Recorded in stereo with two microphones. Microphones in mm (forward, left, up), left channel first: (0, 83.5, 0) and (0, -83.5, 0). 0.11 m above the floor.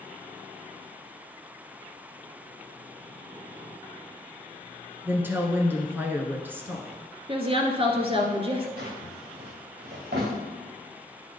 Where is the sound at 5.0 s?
10° right (ahead or behind), 1.3 m.